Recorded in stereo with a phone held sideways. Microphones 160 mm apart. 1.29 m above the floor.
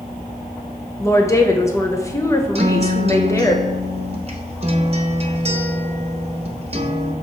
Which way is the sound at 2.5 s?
40° right (ahead or behind).